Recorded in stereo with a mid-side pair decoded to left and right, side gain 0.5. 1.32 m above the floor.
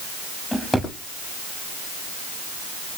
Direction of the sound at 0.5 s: 10° left.